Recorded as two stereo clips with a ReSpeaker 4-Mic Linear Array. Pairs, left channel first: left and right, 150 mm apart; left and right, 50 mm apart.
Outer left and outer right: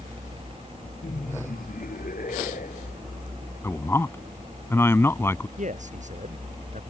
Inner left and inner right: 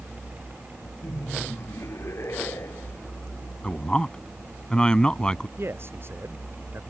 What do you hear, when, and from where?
1.0 s laughter: 70° left (ahead or behind); by 3.0 s 65° left (ahead or behind)
3.6 s a man speaking: 15° left (ahead or behind)
5.6 s a man speaking: 55° right (ahead or behind)